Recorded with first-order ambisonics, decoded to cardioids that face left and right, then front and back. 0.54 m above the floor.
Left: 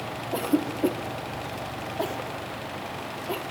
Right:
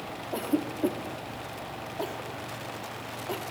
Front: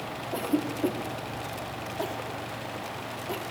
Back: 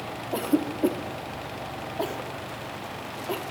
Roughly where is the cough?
Behind left.